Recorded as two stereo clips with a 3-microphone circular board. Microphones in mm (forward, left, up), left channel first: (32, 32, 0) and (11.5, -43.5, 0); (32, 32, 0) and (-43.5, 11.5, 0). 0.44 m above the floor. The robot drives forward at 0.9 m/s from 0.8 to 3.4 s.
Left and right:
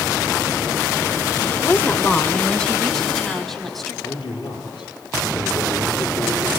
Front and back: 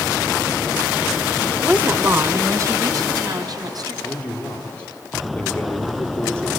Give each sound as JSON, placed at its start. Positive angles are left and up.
{"t": 1.6, "sound": "a woman speaking", "azimuth_deg": 125, "distance_m": 1.0}
{"t": 4.0, "sound": "a man speaking", "azimuth_deg": 90, "distance_m": 9.0}